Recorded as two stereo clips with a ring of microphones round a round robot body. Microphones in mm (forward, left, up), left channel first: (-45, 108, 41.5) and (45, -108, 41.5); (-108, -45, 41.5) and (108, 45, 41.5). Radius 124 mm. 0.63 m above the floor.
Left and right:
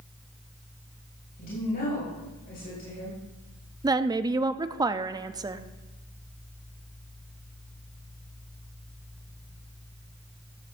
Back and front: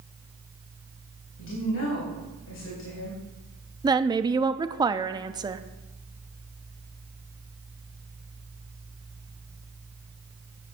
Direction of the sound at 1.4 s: 165° left.